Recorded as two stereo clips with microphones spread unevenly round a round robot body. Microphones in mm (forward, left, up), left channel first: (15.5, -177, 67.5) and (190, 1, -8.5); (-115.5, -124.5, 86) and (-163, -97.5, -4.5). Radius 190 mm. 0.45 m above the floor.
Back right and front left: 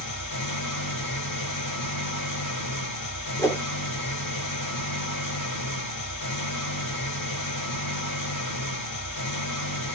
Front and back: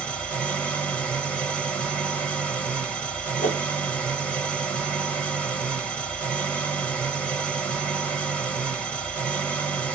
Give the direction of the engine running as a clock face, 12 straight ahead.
5 o'clock.